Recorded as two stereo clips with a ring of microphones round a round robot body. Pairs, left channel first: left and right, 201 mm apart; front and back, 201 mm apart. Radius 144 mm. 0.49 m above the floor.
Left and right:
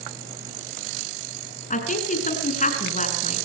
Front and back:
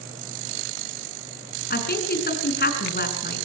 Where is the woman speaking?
40° left, 5.5 m.